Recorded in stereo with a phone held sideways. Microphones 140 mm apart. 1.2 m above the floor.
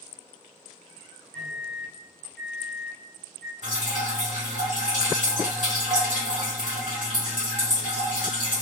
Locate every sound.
1.3 s a microwave: 10° left (ahead or behind), 1.4 m
3.6 s dripping: 65° right (ahead or behind), 1.5 m